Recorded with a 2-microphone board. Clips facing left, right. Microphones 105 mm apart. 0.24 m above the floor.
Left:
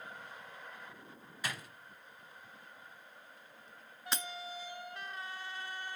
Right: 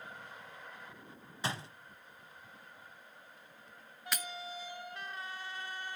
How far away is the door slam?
About 0.9 m.